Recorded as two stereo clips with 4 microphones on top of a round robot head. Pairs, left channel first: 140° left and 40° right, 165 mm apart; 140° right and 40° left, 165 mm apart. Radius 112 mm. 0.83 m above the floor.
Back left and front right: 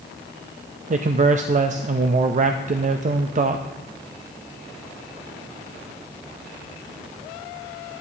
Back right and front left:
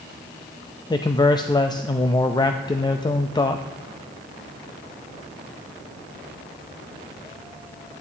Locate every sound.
0.9 s a man speaking: 75° right, 0.5 m